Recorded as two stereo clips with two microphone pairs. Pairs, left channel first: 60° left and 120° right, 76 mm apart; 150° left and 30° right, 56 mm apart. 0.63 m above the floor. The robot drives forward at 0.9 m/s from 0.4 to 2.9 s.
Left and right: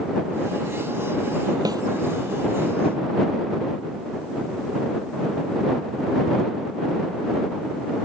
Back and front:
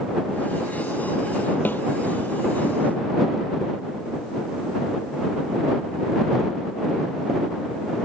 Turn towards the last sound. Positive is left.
turn(degrees=-155)